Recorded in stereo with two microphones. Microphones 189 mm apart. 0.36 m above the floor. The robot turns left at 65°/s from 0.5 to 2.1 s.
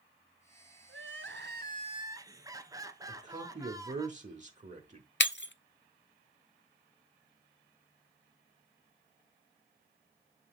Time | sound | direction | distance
0.9 | crying | 85° right | 0.9 m
3.1 | a man speaking | 35° right (ahead or behind) | 1.2 m
5.2 | breaking glass | 65° left (ahead or behind) | 0.6 m